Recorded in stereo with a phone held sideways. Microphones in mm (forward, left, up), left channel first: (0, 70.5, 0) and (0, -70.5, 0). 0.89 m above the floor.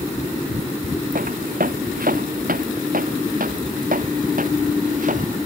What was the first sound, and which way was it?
Footsteps, 75° right (ahead or behind).